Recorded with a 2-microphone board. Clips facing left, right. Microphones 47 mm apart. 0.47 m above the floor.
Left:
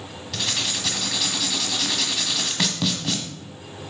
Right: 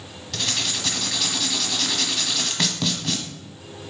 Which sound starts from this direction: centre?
Writing, at 0.3 s.